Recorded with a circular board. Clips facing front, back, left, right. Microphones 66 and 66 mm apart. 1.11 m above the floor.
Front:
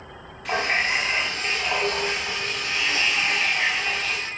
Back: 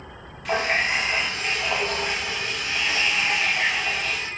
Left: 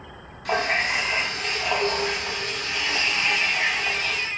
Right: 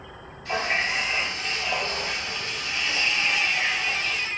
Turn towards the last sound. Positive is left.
turn(degrees=90)